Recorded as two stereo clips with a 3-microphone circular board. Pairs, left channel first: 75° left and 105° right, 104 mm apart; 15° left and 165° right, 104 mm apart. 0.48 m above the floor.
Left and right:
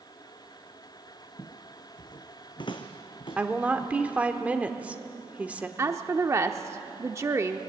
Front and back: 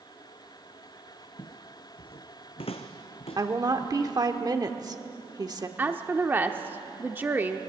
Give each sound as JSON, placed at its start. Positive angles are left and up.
{"t": 1.4, "sound": "footsteps", "azimuth_deg": 30, "distance_m": 0.6}
{"t": 3.4, "sound": "a woman speaking", "azimuth_deg": -175, "distance_m": 1.1}
{"t": 5.8, "sound": "a woman speaking", "azimuth_deg": -115, "distance_m": 0.7}